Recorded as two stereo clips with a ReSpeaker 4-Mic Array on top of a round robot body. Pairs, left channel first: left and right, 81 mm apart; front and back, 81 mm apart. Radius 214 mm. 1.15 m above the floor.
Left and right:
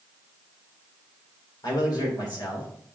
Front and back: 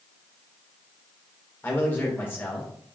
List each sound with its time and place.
1.6 s a man speaking: 65° left, 3 m